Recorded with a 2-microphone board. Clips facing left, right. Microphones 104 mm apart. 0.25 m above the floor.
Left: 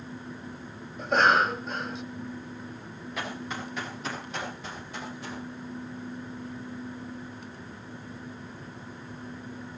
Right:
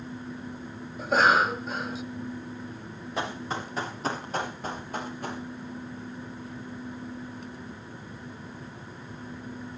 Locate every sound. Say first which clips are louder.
1.0 s a cough: even; 5° right (ahead or behind), 1.2 m
3.2 s running footsteps: right 4 dB; 30° right (ahead or behind), 6.5 m; by 5.4 s 50° right (ahead or behind), 7.5 m